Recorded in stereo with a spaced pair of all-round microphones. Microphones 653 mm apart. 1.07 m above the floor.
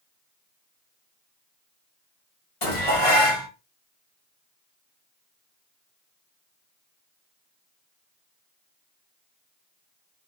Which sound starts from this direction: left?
Dishes clattering, at 2.6 s.